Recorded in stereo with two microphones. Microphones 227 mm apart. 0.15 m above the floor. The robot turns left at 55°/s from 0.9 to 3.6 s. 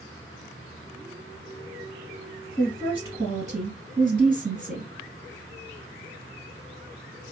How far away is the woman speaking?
About 2 m.